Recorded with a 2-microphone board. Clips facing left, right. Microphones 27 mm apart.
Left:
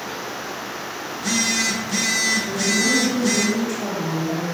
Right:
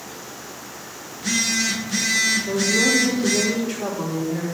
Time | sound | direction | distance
1.1 | a phone buzzing | centre (ahead or behind) | 1.2 m
2.5 | a woman speaking | 35° right (ahead or behind) | 3 m